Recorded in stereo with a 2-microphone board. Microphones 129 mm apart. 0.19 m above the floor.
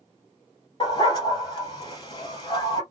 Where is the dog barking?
40° left (ahead or behind), 1.7 m.